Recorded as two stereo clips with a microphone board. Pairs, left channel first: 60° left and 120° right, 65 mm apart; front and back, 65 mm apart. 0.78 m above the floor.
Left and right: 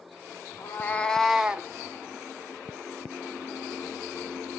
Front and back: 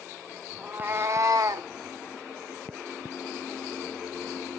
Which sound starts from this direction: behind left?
A cat meowing, at 0.6 s.